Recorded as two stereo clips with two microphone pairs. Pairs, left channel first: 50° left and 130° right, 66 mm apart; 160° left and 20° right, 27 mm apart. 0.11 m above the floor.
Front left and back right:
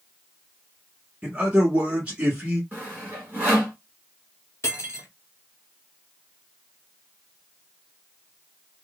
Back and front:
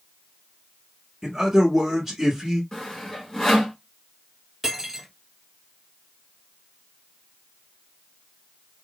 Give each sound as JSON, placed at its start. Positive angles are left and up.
{"t": 1.2, "sound": "a man speaking", "azimuth_deg": -95, "distance_m": 1.1}
{"t": 2.7, "sound": "sawing", "azimuth_deg": -145, "distance_m": 1.8}
{"t": 4.6, "sound": "cutlery clinking", "azimuth_deg": 55, "distance_m": 1.2}